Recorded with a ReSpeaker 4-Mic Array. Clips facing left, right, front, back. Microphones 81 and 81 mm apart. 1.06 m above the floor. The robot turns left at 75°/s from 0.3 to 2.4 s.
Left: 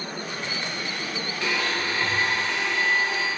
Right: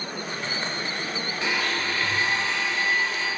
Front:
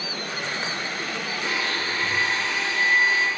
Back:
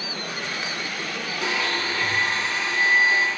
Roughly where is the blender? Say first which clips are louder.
Left 1 dB, back 3 dB; behind.